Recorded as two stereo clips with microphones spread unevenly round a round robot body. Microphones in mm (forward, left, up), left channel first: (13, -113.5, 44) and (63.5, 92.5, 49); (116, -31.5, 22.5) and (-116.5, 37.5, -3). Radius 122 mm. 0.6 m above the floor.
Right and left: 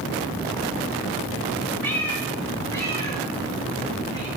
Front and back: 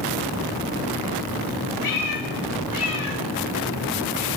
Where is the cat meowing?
20° right, 3.5 m; by 4.3 s 35° right, 5 m.